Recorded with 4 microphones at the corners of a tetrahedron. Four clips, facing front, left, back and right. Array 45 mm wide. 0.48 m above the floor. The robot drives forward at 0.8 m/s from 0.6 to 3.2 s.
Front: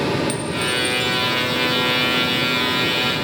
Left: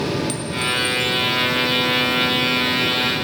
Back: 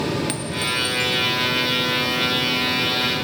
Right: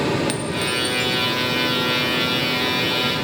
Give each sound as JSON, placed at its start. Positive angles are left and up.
{"t": 0.3, "sound": "a clink", "azimuth_deg": -130, "distance_m": 2.0}